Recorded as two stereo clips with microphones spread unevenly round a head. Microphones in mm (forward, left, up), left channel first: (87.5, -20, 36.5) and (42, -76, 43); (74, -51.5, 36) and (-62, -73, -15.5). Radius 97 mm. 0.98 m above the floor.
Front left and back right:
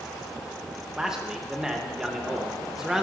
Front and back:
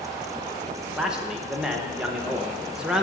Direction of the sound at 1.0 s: 145° left.